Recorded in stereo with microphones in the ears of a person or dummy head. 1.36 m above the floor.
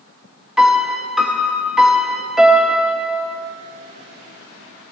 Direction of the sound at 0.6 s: 10° right (ahead or behind).